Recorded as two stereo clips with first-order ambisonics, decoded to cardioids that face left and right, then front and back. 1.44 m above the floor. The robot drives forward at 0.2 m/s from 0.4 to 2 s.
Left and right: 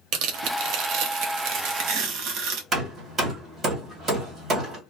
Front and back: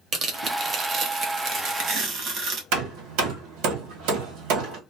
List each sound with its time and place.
0.1 s tearing paper: 120° right, 0.9 m; by 2.6 s 135° right, 1.1 m
2.7 s hammering: 165° right, 1.6 m